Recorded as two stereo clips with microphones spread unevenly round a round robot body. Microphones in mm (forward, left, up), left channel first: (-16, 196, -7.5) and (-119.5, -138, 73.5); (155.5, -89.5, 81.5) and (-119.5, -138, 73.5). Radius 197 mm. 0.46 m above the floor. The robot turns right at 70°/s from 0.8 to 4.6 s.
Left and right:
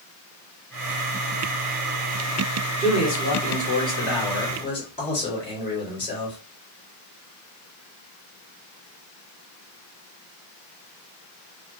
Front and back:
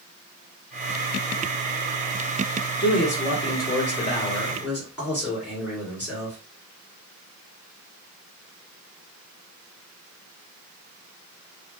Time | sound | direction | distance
2.8 | a man speaking | 15° right | 1.6 m